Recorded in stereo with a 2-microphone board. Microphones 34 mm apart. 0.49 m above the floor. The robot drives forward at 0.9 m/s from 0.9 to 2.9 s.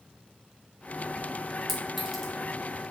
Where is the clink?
Centre (ahead or behind), 3 m.